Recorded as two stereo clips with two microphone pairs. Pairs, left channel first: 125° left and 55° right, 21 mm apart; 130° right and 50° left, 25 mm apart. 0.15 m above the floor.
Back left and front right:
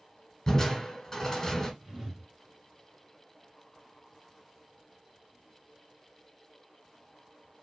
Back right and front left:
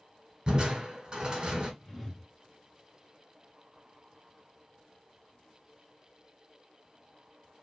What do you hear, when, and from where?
0.5 s crushing: 65° left, 1.2 m
1.8 s a whoosh: 75° right, 0.8 m